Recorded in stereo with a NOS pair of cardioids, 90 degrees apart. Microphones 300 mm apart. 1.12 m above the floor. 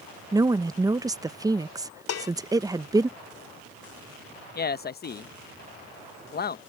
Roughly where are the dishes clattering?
Ahead left.